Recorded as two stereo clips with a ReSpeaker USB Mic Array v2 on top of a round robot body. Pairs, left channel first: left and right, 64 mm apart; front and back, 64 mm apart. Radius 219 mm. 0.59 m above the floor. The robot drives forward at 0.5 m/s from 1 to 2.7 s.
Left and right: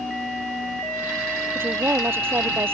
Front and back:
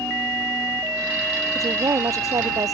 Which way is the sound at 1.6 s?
145° right.